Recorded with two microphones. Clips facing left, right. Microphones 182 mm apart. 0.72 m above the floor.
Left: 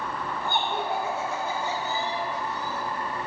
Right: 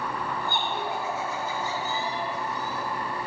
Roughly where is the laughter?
Left.